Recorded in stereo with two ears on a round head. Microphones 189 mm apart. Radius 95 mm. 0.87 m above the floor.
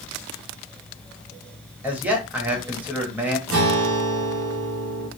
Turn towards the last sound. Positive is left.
turn(degrees=-70)  # may be behind; listen again after turning